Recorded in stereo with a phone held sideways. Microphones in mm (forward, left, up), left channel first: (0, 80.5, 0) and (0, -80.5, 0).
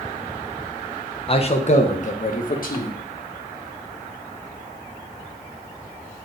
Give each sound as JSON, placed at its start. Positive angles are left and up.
{"t": 1.3, "sound": "a man speaking", "side_deg": 35, "distance_m": 1.0}